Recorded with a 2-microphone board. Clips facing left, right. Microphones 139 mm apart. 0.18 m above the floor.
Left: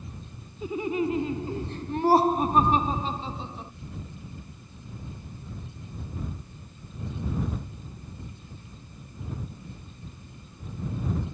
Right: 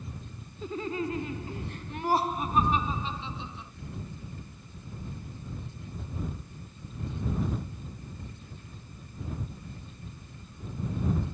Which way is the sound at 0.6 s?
10° left (ahead or behind).